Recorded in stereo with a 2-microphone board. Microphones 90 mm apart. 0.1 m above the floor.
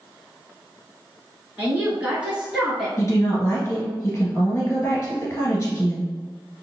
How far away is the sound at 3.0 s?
About 1.5 m.